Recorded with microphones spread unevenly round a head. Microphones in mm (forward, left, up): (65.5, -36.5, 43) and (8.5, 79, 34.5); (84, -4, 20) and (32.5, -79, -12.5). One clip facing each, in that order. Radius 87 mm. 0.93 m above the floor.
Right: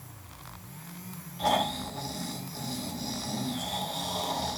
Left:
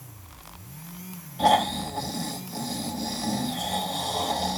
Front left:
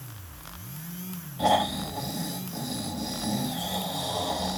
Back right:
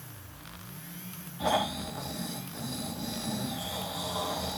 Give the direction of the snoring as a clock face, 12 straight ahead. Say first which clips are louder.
Left 6 dB, front left 5 dB; 9 o'clock.